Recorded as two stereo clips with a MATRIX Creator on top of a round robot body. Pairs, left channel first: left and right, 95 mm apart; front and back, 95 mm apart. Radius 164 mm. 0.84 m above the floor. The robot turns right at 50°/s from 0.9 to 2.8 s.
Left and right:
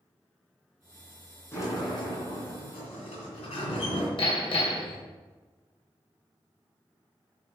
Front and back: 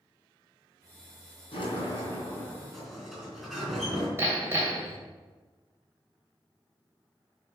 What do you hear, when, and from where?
1.5 s a sliding door: 25° left, 3.5 m; by 4.1 s 90° left, 3.5 m
4.2 s hammering: 115° left, 2.5 m